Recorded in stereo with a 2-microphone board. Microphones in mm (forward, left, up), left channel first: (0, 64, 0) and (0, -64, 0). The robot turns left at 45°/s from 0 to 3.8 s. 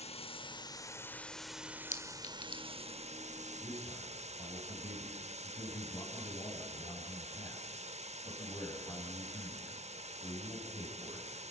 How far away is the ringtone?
No ringtone in this recording.